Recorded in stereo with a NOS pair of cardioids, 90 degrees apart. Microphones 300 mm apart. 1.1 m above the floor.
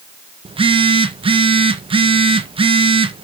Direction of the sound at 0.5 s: 15° right.